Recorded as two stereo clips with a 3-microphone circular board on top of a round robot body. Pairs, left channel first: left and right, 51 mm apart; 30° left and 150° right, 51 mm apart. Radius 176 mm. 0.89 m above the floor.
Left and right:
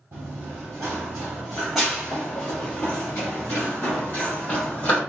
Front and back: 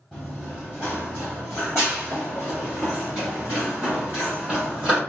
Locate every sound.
0.1 s running footsteps: 70° right, 1.1 m; by 5.0 s 145° left, 2 m